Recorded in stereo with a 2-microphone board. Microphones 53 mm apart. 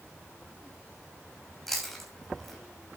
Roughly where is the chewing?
Centre.